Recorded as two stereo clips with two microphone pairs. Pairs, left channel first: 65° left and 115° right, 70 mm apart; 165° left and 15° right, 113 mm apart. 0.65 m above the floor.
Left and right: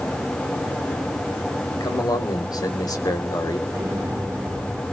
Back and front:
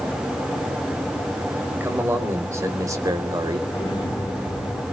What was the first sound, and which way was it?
A man speaking, 55° left.